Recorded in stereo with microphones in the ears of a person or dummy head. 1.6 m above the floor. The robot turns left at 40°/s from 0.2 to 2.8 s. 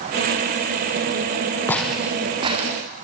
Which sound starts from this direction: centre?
Footsteps, at 1.7 s.